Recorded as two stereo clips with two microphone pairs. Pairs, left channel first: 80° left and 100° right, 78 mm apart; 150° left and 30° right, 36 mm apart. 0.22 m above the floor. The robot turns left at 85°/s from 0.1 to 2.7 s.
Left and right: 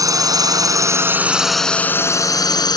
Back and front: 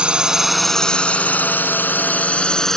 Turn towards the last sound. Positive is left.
turn(degrees=75)